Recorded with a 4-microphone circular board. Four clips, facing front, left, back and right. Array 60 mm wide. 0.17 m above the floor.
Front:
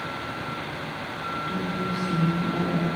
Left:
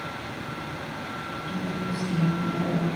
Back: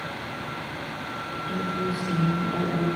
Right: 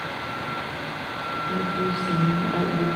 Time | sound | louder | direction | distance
1.5 | a woman speaking | right 5 dB, back 4 dB | 100° right | 5.5 m